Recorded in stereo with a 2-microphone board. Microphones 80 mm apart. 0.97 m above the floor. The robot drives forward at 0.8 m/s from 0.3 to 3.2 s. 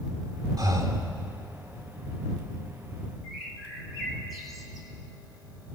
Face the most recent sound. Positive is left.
turn(degrees=5)  # may be behind; listen again after turning